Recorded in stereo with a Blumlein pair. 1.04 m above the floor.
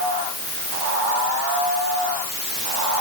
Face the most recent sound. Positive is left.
No sound to turn to.